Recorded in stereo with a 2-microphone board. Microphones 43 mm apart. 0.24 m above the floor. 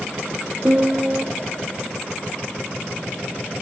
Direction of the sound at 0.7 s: 25° right (ahead or behind).